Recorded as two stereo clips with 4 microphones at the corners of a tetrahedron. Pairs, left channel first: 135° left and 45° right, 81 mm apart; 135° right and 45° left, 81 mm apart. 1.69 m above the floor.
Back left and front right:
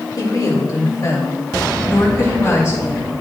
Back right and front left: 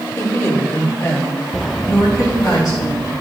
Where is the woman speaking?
170° left, 2.5 m; by 3.1 s 170° right, 5.5 m.